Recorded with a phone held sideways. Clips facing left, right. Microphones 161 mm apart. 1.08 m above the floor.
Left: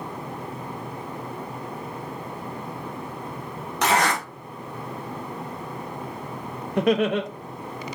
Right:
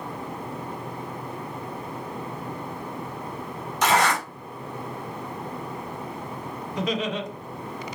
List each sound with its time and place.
3.8 s a zipper: 75° left (ahead or behind), 1.9 m
6.8 s laughter: 65° left (ahead or behind), 0.5 m